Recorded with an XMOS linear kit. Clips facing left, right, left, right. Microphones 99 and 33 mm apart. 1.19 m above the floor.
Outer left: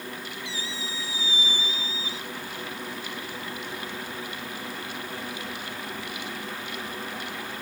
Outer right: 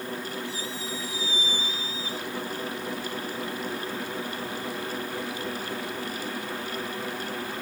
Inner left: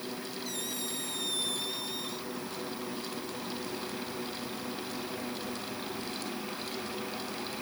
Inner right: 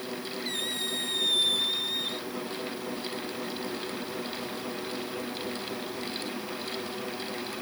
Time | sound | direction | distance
0.5 | a squeak | 45° right (ahead or behind) | ?